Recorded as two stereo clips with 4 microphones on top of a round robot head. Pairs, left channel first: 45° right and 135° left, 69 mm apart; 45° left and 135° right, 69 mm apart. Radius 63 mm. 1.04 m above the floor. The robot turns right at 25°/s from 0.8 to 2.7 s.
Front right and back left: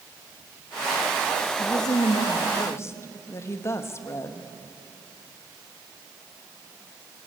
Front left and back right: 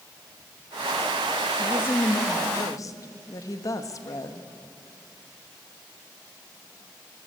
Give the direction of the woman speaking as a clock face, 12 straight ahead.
1 o'clock.